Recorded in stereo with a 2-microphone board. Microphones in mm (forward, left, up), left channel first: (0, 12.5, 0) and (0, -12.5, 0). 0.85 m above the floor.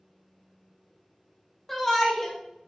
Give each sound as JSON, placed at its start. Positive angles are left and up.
{"t": 1.7, "sound": "a shout", "side_deg": 10, "distance_m": 0.8}